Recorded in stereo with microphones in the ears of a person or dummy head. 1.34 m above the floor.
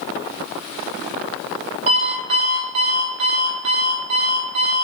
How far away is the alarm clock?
About 1.7 m.